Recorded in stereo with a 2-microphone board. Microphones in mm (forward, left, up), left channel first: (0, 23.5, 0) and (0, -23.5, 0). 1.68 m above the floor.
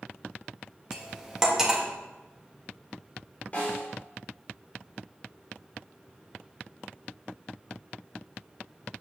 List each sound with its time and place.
0.9 s cutlery clinking: 10° right (ahead or behind), 1.4 m
3.5 s a snare drum: 30° left (ahead or behind), 5 m